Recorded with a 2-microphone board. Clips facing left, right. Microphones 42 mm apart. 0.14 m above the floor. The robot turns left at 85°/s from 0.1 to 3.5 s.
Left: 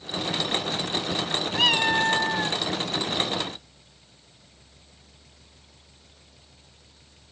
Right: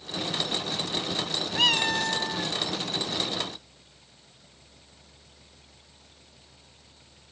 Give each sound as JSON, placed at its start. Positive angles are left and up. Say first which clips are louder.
{"t": 1.6, "sound": "a cat meowing", "louder": "left 3 dB", "azimuth_deg": 175}